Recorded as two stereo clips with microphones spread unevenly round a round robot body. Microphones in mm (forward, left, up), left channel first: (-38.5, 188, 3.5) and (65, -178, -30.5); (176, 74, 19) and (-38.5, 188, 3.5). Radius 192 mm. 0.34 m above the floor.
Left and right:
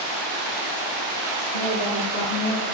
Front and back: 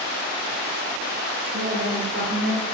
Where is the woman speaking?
105° left, 5 m; by 2.6 s 110° left, 5.5 m.